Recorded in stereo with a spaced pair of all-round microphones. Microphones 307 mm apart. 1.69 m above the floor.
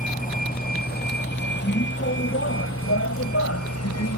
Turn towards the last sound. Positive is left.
turn(degrees=60)  # may be behind; listen again after turning